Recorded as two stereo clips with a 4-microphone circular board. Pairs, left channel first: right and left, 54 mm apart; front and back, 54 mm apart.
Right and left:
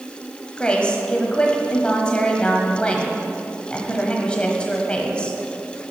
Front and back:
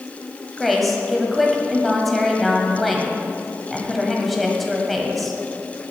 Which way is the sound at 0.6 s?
90° right.